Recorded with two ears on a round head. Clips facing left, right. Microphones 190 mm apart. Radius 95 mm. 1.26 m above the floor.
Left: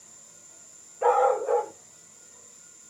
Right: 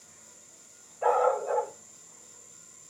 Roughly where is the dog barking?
Left.